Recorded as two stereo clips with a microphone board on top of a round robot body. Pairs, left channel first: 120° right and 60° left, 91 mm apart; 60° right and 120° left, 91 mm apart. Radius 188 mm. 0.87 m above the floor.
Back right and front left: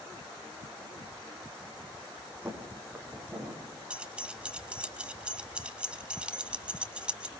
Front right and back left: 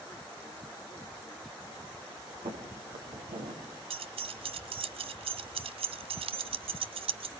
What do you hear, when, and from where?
2.5 s footsteps: 130° left, 4 m; by 3.6 s 135° left, 4.5 m
3.9 s keys jangling: 140° left, 0.5 m